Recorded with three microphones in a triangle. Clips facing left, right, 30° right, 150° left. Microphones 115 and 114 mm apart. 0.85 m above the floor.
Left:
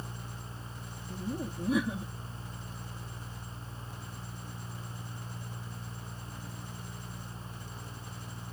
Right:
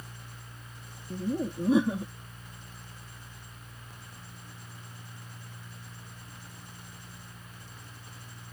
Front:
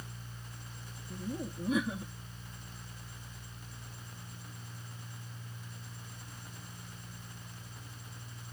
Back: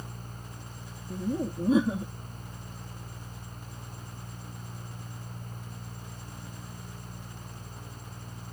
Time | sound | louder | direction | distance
1.1 | laughter | right 6 dB, back 8 dB | 150° right | ?